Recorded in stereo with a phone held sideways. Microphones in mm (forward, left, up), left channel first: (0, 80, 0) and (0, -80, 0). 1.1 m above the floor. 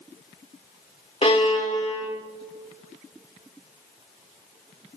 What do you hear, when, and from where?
1.2 s a violin: 40° left (ahead or behind), 3 m